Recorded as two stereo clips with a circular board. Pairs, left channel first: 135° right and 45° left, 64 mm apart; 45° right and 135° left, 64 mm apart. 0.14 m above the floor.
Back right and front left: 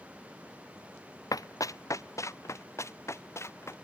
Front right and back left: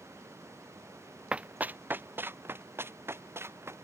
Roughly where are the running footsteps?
Behind right.